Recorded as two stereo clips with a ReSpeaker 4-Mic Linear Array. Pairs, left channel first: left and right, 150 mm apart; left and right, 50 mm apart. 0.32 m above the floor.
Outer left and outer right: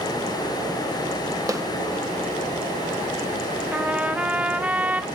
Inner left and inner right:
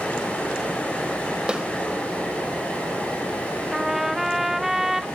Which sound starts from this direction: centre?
A trumpet, at 3.7 s.